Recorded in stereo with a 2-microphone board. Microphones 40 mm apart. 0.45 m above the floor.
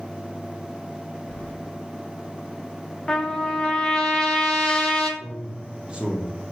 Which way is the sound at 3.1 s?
15° left (ahead or behind).